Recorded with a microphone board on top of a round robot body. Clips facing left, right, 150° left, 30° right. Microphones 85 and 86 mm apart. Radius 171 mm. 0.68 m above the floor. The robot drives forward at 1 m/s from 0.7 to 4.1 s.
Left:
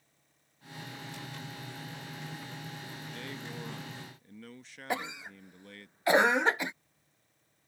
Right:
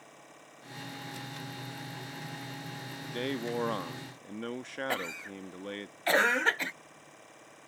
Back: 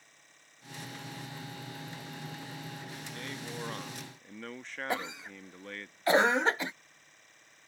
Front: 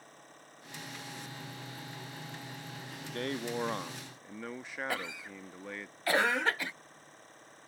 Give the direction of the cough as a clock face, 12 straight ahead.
7 o'clock.